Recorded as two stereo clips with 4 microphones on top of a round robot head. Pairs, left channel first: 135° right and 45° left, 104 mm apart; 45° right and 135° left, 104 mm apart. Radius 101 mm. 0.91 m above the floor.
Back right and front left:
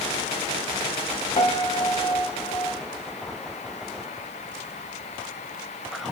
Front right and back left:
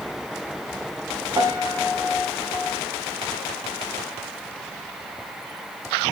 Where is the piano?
170° right, 3 m.